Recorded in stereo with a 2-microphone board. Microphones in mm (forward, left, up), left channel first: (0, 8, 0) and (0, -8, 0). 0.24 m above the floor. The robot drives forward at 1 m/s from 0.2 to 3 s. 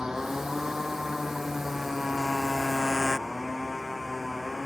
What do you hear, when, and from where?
0.0 s a motorcycle: 40° right (ahead or behind); by 4.7 s 25° right (ahead or behind)